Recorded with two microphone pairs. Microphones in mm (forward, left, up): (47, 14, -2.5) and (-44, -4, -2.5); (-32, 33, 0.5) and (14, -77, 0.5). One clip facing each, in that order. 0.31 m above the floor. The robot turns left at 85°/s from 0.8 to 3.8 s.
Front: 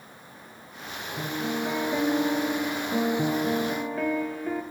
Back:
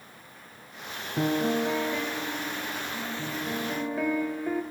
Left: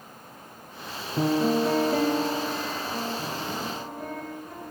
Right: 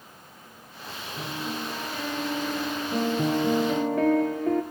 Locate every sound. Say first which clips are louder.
1.2 s a piano: back 5 dB, left 12 dB; 145° left, 2.5 m; by 4.6 s 80° right, 2.5 m